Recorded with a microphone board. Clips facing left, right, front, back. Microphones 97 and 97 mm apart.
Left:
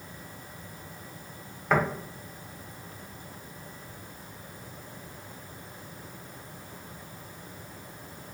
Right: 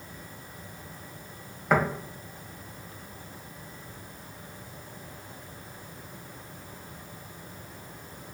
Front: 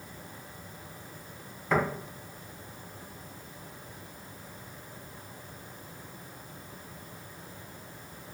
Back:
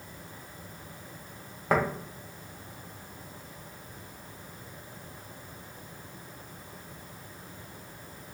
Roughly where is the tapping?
Behind.